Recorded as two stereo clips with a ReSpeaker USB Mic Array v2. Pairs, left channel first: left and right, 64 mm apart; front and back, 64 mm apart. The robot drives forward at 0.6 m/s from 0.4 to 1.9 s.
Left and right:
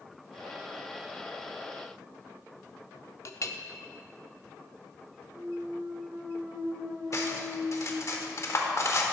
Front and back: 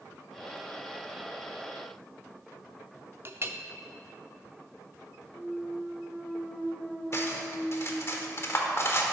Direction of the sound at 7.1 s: 50° left.